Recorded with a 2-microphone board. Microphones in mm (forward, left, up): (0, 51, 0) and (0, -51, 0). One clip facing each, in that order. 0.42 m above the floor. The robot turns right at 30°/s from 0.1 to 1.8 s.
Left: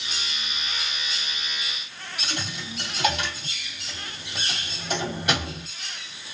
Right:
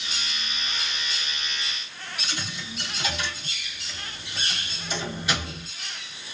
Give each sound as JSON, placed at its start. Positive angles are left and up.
{"t": 2.2, "sound": "a dropped coin", "side_deg": 60, "distance_m": 2.0}